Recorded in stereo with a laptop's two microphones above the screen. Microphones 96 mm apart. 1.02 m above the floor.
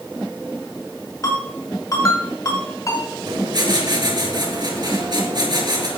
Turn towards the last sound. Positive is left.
turn(degrees=-50)  # may be behind; listen again after turning